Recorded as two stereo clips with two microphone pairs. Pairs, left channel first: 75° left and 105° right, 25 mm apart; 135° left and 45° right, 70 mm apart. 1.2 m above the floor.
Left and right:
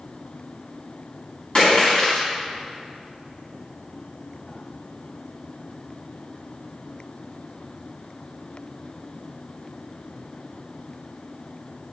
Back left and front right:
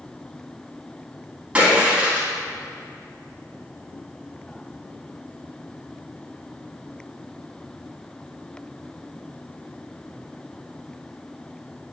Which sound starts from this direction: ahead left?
A splash, at 1.6 s.